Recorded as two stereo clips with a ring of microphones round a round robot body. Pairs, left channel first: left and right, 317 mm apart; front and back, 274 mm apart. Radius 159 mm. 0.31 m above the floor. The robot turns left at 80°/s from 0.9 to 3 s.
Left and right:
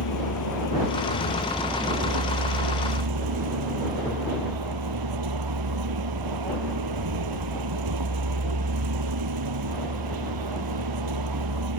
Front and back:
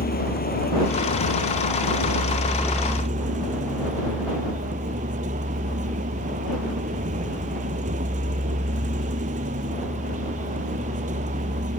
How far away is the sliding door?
I don't hear a sliding door.